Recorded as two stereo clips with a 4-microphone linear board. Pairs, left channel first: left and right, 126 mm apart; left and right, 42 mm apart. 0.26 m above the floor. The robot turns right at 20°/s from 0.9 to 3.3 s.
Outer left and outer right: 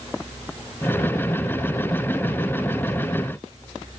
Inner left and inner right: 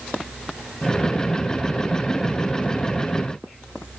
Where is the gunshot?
I don't hear a gunshot.